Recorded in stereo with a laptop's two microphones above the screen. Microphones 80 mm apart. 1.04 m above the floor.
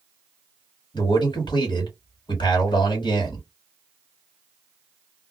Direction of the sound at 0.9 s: 70° left (ahead or behind).